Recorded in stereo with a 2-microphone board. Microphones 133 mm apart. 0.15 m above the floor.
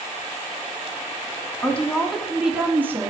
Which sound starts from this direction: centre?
A woman speaking, at 1.6 s.